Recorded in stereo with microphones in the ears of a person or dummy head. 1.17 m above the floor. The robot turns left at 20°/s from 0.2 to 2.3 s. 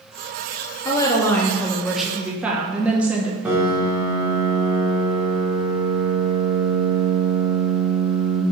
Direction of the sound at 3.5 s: 10° right (ahead or behind).